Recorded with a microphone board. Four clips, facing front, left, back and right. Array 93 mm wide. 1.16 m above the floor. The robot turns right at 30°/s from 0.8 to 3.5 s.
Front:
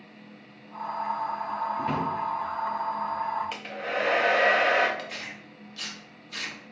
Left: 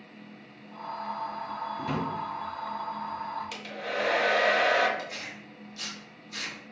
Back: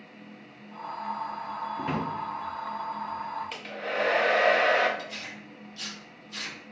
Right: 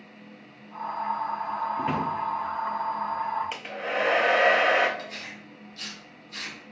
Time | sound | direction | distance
1.8 | a drawer | 105° right | 0.8 m
3.5 | a hair dryer | 70° right | 0.5 m
5.0 | tearing paper | 10° left | 1.0 m